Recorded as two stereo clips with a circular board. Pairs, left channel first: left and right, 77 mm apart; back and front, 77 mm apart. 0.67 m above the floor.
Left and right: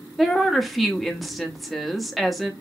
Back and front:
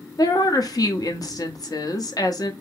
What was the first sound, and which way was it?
A woman speaking, straight behind.